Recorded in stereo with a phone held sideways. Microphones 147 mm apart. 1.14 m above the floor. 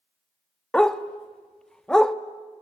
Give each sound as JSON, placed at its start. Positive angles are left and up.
{"t": 0.7, "sound": "a dog barking", "side_deg": 5, "distance_m": 0.7}